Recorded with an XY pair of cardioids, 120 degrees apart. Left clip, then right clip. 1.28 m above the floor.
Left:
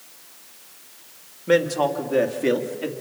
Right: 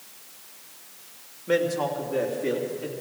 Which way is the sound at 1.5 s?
35° left.